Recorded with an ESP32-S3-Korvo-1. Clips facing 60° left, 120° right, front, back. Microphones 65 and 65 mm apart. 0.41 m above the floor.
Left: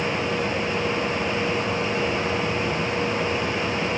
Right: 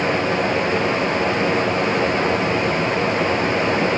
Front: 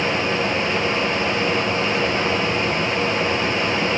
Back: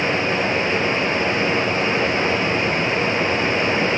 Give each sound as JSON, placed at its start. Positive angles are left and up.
{"t": 0.0, "sound": "running water", "azimuth_deg": -125, "distance_m": 1.4}